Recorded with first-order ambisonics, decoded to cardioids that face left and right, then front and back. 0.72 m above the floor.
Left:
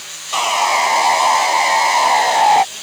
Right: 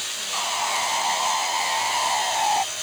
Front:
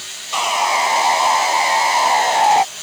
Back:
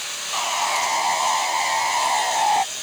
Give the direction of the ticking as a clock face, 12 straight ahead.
I don't hear ticking.